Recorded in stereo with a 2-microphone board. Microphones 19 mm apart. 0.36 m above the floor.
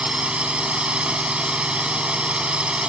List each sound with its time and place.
0.0 s a drone: 65° right (ahead or behind)